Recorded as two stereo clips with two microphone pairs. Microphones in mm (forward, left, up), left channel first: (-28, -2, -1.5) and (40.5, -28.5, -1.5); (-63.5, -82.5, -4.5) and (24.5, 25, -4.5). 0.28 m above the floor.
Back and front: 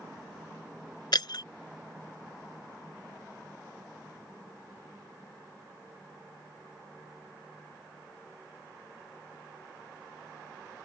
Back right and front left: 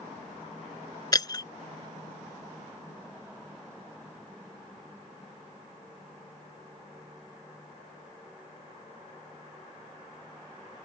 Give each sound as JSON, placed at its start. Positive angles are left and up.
{"t": 1.1, "sound": "breaking glass", "azimuth_deg": 175}